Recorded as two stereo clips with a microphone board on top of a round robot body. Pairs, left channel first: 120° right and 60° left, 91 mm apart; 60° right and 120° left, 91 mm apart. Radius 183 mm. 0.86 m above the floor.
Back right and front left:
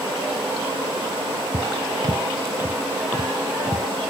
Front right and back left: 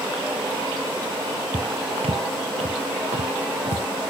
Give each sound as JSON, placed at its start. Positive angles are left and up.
{"t": 1.5, "sound": "footsteps", "azimuth_deg": 85}